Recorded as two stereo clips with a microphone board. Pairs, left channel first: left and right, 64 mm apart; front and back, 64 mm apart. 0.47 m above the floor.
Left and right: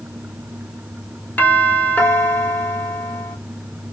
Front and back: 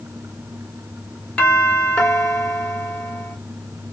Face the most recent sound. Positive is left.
turn(degrees=55)